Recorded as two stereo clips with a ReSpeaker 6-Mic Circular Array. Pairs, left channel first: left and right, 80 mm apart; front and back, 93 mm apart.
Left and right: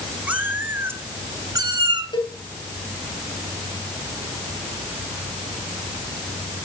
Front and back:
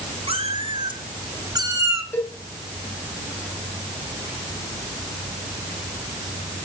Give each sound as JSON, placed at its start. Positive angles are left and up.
{"t": 0.3, "sound": "a cat meowing", "azimuth_deg": -165, "distance_m": 2.0}
{"t": 2.1, "sound": "a cowbell", "azimuth_deg": 70, "distance_m": 2.5}